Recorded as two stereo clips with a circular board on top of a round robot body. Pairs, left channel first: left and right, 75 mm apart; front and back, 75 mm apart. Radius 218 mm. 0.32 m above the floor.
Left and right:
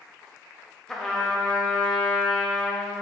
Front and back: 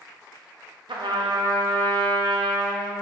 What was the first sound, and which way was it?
A trumpet, 175° left.